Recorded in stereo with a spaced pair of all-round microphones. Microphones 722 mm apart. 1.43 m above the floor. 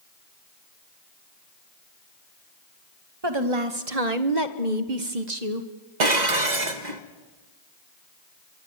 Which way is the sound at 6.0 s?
70° right (ahead or behind).